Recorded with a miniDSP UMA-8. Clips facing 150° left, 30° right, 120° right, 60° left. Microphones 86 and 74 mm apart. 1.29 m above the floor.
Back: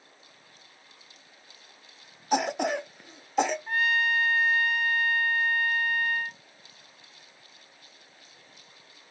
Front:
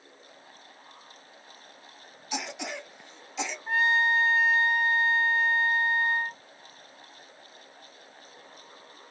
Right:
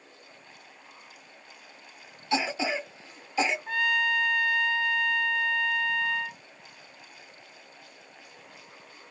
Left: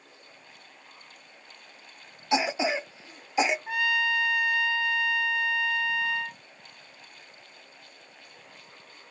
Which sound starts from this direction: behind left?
A cough, at 2.3 s.